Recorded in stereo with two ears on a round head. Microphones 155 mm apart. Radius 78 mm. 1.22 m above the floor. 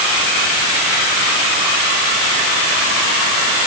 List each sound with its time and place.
Only background noise.